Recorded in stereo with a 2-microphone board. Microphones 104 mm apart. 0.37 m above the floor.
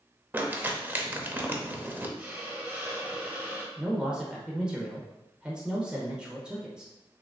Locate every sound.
0.3 s crumpling: 20° right (ahead or behind), 0.6 m
2.2 s a hiss: 15° right (ahead or behind), 1.2 m
3.8 s a man speaking: 10° right (ahead or behind), 1.0 m